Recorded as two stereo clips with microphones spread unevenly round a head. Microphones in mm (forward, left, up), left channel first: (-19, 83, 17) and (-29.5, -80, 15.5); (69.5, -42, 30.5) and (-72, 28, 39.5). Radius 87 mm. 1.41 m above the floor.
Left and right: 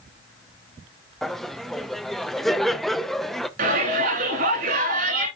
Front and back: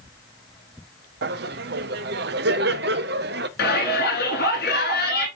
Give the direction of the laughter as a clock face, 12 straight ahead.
6 o'clock.